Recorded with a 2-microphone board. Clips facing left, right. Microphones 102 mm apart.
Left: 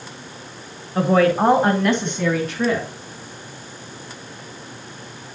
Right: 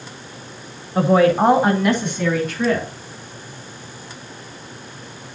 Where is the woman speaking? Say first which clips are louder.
Right 2 dB; 5° right (ahead or behind), 1.3 m; by 2.9 s 15° left (ahead or behind), 2.5 m.